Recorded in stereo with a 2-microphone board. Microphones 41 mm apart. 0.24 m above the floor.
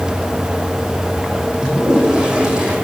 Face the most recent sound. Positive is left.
turn(degrees=-20)  # may be behind; listen again after turning